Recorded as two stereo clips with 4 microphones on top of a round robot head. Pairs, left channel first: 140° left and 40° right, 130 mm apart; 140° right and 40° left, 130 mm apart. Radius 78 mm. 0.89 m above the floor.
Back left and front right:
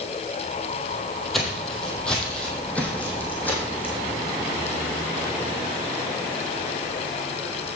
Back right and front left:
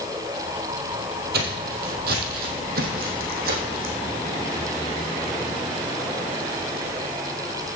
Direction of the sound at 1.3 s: 50° left.